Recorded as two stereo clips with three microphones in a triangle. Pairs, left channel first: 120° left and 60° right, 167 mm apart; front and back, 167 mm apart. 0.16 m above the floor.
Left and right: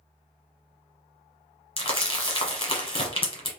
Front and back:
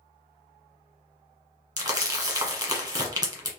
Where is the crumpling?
135° left, 1.0 m.